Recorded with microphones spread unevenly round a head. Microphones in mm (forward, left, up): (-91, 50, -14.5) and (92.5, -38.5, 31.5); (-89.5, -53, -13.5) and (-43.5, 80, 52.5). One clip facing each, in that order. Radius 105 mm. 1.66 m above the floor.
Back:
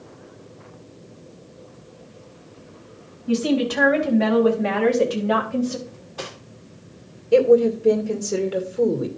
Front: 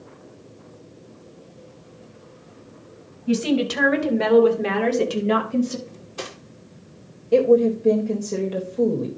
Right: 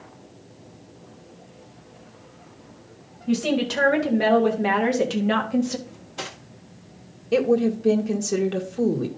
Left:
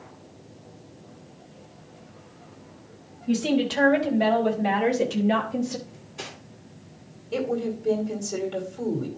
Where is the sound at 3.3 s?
50° right, 2.5 m; by 5.8 s 90° right, 2 m.